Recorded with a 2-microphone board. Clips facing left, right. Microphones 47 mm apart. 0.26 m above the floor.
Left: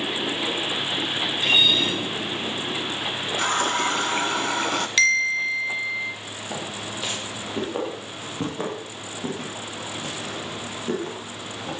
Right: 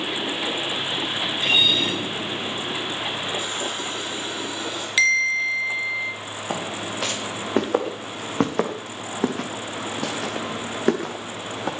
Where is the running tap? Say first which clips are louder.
Left 6 dB; 65° left (ahead or behind), 1.4 m.